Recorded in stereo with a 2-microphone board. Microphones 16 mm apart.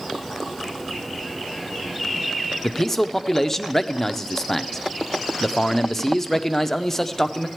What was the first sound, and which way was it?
A man speaking, 15° left (ahead or behind).